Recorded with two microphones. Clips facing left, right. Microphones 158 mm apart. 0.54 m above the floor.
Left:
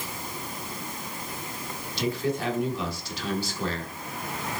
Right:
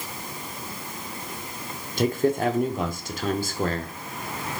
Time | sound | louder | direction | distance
2.0 | a man speaking | right 6 dB | 50° right (ahead or behind) | 0.9 m